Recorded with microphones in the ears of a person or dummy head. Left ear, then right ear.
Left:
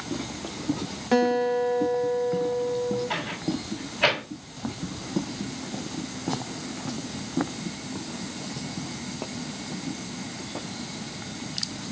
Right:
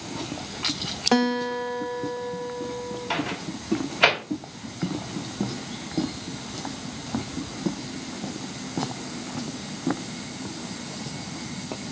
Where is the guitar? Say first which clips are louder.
Left 4 dB; 25° right (ahead or behind), 0.9 m.